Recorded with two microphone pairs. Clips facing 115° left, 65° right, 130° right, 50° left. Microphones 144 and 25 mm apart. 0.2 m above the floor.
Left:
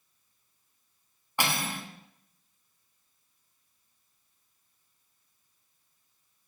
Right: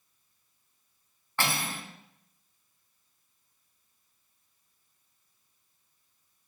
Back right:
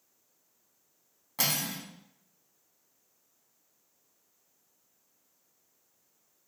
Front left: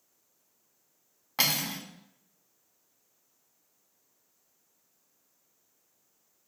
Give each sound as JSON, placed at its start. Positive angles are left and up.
{"t": 1.4, "sound": "cutlery clinking", "azimuth_deg": 50, "distance_m": 0.7}